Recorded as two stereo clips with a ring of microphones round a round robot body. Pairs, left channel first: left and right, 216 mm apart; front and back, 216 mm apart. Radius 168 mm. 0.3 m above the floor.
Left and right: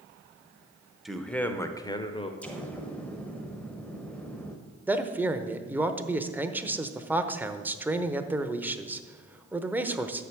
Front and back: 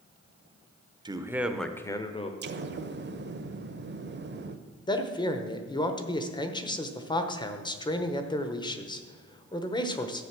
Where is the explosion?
175° left, 0.9 m.